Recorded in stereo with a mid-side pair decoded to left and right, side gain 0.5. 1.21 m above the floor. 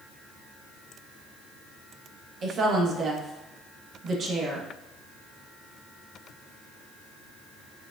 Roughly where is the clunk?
I don't hear a clunk.